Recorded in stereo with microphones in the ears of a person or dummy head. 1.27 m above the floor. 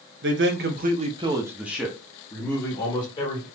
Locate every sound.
0.2 s a man speaking: 60° right (ahead or behind), 1.0 m; by 3.5 s 30° left (ahead or behind), 2 m